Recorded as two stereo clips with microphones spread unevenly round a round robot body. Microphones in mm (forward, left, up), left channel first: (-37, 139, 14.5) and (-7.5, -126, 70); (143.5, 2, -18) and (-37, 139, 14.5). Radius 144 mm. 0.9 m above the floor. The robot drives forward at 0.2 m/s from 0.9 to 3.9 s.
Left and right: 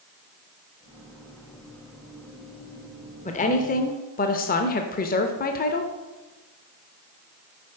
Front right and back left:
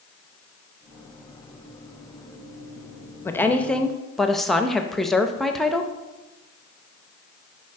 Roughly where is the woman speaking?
Ahead left.